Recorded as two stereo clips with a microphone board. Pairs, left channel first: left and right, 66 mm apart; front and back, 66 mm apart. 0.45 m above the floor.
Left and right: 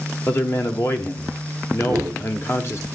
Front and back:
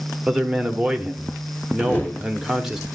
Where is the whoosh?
65° right, 1.0 m.